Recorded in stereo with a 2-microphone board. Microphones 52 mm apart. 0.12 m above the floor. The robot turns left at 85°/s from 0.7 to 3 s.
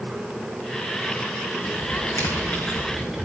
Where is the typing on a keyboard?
65° left (ahead or behind), 3 m; by 3.2 s centre (ahead or behind), 3 m.